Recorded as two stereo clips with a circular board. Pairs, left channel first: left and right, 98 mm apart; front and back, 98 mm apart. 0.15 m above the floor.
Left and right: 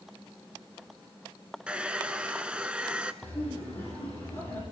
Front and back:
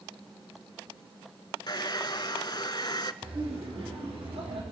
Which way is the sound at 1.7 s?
15° right.